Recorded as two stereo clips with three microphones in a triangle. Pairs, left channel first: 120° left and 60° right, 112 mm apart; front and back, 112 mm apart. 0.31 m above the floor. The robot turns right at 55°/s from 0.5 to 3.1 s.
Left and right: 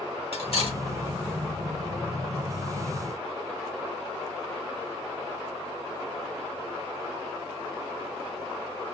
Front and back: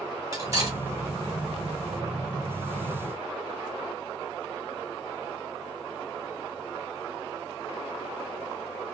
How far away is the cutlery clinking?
About 1.1 m.